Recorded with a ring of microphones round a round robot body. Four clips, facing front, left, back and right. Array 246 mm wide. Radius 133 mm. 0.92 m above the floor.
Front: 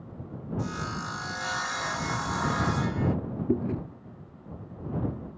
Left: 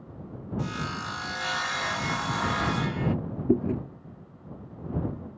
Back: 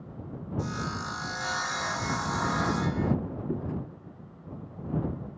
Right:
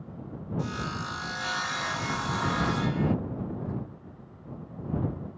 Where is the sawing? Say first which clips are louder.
Left 1 dB, back 1 dB; 105° left.